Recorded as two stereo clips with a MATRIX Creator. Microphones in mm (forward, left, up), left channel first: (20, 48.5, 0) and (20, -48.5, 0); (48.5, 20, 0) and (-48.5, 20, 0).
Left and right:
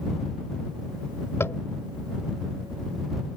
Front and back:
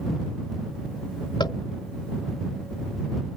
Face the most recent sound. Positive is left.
turn(degrees=30)